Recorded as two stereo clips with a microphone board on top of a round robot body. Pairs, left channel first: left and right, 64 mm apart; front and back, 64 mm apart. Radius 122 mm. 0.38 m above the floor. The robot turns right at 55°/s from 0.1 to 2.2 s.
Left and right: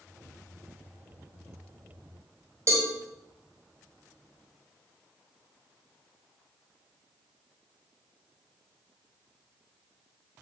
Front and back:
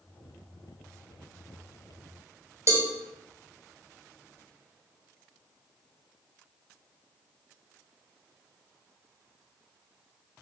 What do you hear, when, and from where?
2.7 s a cowbell: 135° right, 1.8 m